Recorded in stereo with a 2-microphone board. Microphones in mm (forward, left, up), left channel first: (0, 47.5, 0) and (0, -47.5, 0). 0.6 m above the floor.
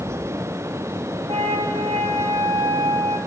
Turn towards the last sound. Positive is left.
turn(degrees=-70)  # may be behind; listen again after turning